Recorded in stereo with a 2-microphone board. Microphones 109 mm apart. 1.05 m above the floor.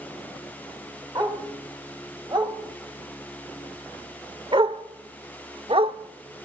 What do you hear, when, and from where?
1.1 s a dog barking: 40° right (ahead or behind), 3 m; by 6.0 s 60° right (ahead or behind), 0.9 m